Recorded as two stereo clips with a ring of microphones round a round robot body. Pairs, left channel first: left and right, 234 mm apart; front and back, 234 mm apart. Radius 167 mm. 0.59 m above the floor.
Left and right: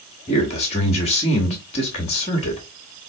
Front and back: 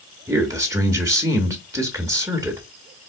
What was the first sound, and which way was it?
A man speaking, 115° left.